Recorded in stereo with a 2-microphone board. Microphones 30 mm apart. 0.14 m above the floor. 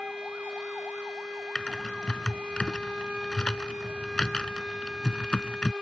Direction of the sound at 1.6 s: 30° left (ahead or behind).